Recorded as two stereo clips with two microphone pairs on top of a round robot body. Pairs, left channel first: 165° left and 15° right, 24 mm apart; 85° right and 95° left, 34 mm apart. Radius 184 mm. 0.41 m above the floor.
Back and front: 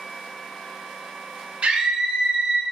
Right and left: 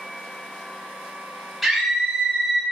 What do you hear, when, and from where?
1.6 s a scream: 5° left, 2.5 m; by 2.6 s 15° left, 1.9 m